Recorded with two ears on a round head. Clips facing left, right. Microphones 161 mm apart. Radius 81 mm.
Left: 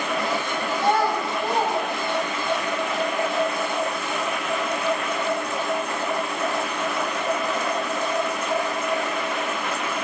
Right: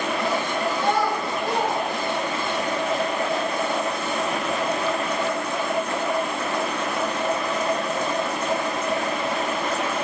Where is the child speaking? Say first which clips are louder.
Left 3 dB; 25° left (ahead or behind), 6 m; by 2.6 s 30° left (ahead or behind), 7 m.